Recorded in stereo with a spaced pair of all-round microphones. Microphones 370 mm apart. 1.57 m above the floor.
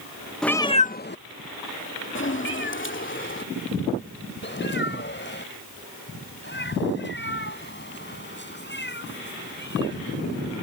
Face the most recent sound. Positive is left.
turn(degrees=30)  # may be behind; listen again after turning